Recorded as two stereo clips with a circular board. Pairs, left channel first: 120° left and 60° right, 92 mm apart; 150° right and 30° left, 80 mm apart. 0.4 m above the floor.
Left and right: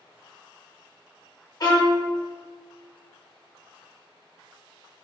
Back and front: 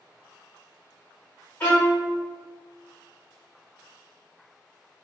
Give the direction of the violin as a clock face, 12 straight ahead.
7 o'clock.